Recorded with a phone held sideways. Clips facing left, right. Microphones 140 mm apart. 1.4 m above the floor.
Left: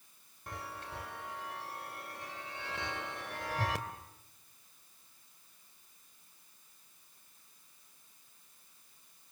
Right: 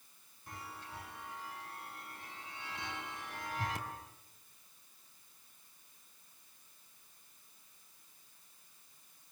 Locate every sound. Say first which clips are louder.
0.5 s a chime: left 4 dB; 75° left (ahead or behind), 2.5 m